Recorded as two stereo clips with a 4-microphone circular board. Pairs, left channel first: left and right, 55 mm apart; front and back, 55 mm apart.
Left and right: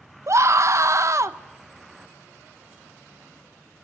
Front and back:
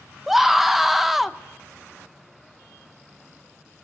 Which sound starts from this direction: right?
A scream, at 0.3 s.